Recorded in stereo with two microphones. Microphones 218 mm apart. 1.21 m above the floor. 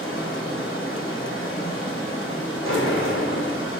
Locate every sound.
0.0 s running water: 70° left (ahead or behind), 2.5 m
2.6 s a sliding door: 65° left (ahead or behind), 2.5 m